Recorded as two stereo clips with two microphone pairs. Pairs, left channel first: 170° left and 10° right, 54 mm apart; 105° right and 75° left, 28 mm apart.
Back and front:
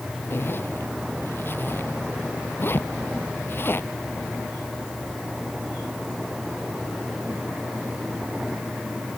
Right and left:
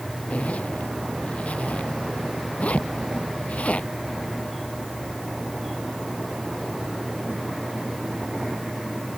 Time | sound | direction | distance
0.3 | a zipper | 140° right | ?